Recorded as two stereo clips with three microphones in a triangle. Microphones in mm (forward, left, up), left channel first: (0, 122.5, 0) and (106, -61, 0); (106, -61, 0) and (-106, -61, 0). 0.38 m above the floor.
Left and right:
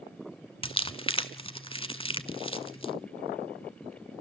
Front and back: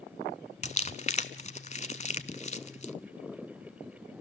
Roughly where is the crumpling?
Ahead left.